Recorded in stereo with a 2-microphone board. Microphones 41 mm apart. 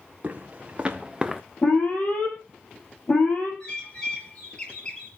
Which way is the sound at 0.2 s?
35° right (ahead or behind).